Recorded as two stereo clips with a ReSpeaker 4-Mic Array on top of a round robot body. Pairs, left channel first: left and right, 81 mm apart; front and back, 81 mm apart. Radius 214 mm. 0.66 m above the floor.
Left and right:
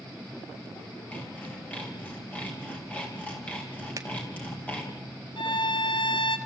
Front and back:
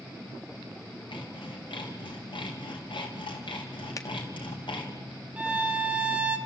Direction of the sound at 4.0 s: 45° right.